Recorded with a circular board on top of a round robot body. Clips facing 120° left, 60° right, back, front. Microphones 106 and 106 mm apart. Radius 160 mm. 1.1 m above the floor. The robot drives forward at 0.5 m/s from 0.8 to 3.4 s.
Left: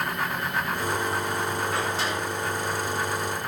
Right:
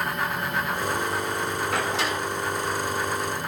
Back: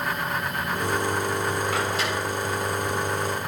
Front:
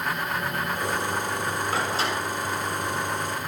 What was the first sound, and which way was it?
A door slam, 60° right.